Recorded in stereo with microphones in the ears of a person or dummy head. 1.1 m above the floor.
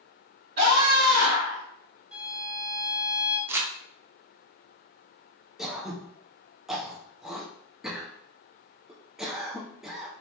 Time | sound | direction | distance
0.6 | a scream | 55° right (ahead or behind) | 1.9 m
2.1 | a violin | 10° right (ahead or behind) | 0.7 m
3.5 | crumpling | 10° right (ahead or behind) | 0.6 m
5.6 | throat clearing | centre (ahead or behind) | 0.6 m